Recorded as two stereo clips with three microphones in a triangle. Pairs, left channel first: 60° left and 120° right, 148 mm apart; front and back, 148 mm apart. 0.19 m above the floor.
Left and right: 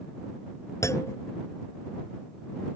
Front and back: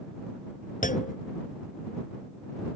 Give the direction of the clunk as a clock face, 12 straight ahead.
12 o'clock.